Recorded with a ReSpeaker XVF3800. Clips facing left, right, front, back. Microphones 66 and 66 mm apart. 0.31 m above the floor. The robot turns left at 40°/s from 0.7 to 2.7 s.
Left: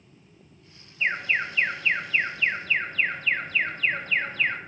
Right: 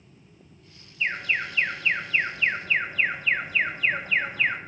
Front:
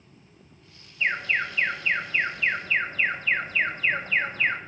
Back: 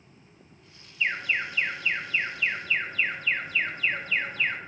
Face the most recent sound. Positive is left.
turn(degrees=-20)